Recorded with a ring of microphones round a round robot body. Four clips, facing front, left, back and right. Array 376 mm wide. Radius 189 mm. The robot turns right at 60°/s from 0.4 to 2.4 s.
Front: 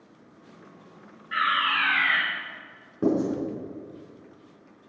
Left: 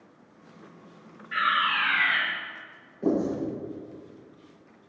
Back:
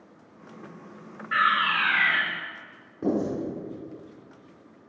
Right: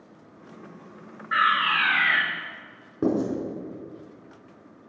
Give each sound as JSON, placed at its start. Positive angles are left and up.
{"t": 1.3, "sound": "a fire alarm", "azimuth_deg": -120, "distance_m": 5.0}
{"t": 3.0, "sound": "writing", "azimuth_deg": -65, "distance_m": 6.0}